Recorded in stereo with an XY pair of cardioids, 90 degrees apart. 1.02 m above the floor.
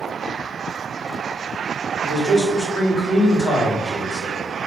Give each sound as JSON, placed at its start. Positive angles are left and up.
{"t": 2.0, "sound": "a man speaking", "azimuth_deg": 65, "distance_m": 1.8}